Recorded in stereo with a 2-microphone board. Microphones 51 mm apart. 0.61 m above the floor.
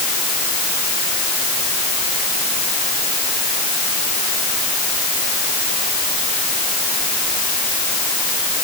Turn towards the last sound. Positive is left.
No sound to turn to.